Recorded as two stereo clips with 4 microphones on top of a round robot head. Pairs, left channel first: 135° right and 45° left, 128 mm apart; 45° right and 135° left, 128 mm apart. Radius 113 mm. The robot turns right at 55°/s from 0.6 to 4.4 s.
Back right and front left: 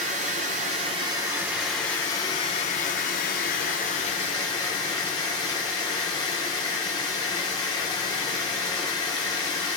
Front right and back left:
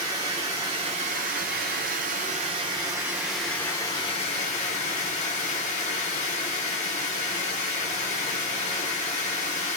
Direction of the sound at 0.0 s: 75° left.